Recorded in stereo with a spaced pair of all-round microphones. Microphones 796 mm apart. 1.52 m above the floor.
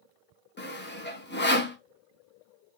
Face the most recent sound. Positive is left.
turn(degrees=15)  # may be behind; listen again after turning